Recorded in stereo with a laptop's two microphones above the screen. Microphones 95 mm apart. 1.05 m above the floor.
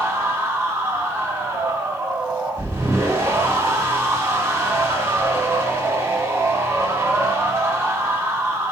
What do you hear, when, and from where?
0.0 s a machine running: 25° right (ahead or behind), 2 m